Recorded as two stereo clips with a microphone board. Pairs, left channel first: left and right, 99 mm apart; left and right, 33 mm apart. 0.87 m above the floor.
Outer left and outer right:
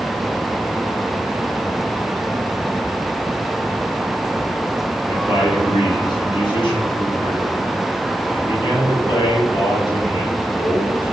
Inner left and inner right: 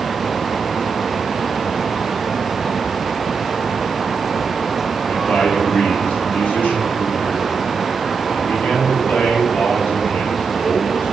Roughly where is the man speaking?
Left.